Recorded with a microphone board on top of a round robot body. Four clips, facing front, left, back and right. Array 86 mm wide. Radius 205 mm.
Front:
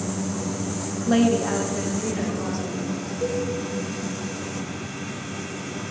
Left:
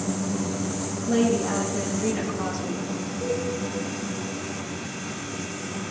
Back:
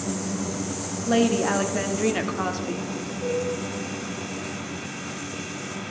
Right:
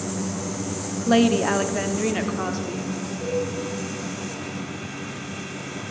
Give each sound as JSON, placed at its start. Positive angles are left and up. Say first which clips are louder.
{"t": 1.1, "sound": "a woman speaking", "louder": "right 4 dB, front 1 dB", "azimuth_deg": -90, "distance_m": 1.0}
{"t": 3.2, "sound": "a cowbell", "louder": "right 2 dB, front 1 dB", "azimuth_deg": 10, "distance_m": 5.5}